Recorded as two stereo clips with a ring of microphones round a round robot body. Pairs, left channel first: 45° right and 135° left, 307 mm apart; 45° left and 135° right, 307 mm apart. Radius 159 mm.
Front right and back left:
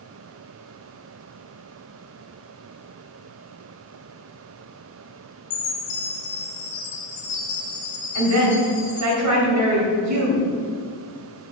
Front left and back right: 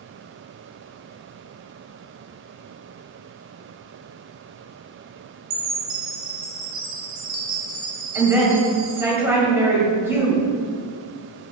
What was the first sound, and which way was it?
A chime, 100° right.